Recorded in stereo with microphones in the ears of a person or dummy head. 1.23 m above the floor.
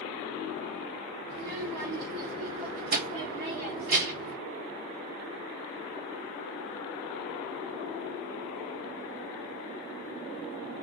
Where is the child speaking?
55° right (ahead or behind), 1.3 m.